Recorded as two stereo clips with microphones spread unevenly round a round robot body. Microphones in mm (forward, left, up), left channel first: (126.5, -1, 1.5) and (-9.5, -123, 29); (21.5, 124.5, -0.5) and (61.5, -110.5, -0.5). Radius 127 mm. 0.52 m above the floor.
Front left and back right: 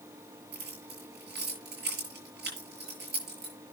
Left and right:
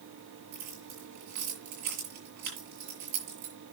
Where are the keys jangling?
110° right, 6.5 m.